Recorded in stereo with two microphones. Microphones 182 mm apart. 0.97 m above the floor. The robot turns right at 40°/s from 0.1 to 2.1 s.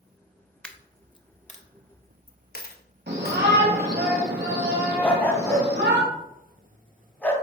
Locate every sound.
0.6 s a dropped coin: 5° left (ahead or behind), 0.7 m; by 3.4 s 60° left (ahead or behind), 0.7 m
3.1 s a shout: 65° right (ahead or behind), 2.5 m
5.0 s a dog barking: 10° left (ahead or behind), 1.9 m